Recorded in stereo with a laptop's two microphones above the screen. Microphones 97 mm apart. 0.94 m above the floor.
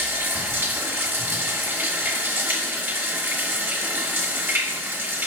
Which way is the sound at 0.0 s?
25° right (ahead or behind).